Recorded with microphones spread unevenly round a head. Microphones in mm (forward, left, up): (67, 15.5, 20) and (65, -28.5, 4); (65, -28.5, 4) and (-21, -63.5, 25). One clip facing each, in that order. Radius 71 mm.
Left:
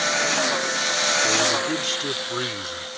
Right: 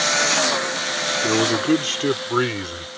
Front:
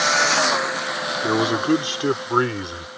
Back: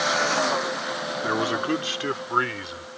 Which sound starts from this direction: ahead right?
A man speaking, at 1.2 s.